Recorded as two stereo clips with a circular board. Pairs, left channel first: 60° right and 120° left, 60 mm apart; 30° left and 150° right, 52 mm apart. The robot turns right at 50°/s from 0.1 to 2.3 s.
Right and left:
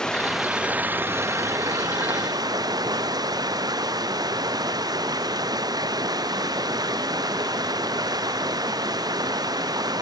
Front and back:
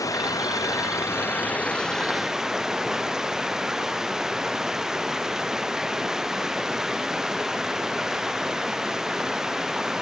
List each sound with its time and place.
0.0 s running water: 20° left; by 10.0 s 130° left